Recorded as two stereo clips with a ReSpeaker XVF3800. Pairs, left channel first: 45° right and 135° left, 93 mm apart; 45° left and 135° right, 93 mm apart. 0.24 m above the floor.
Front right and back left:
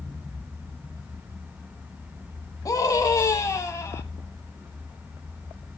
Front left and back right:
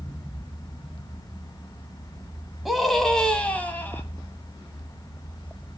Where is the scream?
50° right, 1.5 m; by 4.0 s 5° right, 1.6 m.